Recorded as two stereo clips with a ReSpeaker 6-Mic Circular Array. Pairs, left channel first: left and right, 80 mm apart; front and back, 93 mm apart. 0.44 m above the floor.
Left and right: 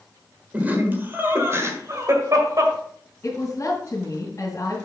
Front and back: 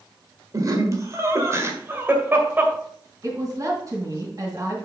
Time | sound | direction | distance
0.5 | laughter | 155° right | 1.6 m
3.2 | a woman speaking | 135° left | 2.5 m